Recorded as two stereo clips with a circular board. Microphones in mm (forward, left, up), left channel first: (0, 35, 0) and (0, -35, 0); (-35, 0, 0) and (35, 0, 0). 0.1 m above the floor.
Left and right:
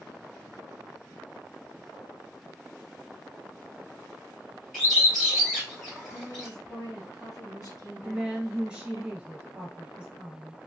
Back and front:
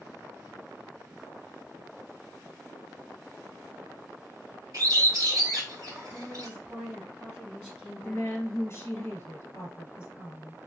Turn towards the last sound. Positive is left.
turn(degrees=-160)